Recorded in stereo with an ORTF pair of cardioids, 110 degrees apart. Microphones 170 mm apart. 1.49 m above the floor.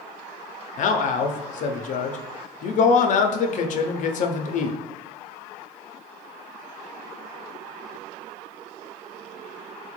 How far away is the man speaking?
About 0.5 m.